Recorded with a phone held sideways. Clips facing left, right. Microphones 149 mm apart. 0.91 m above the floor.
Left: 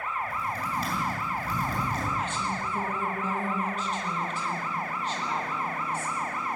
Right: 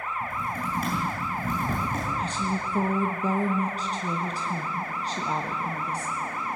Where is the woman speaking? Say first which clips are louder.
Right 2 dB; 35° right (ahead or behind), 1.2 m.